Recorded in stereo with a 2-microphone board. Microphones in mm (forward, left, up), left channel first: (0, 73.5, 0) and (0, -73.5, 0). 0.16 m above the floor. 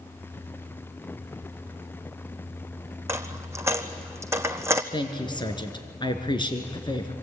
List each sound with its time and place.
3.1 s a dropped coin: 15° right (ahead or behind), 1.4 m
4.9 s a woman speaking: 30° left (ahead or behind), 2.5 m